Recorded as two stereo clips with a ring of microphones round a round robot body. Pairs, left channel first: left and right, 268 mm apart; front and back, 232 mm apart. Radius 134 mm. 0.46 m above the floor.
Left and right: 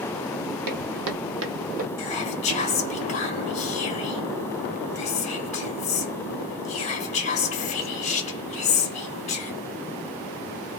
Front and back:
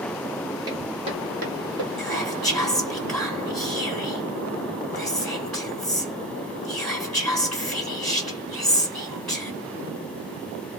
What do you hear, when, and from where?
0.7 s footsteps: 105° right, 1.0 m; by 1.9 s 150° right, 0.7 m
2.0 s whispering: 85° left, 0.7 m